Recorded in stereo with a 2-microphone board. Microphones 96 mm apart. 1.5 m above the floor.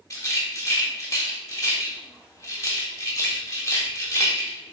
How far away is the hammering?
No hammering in this recording.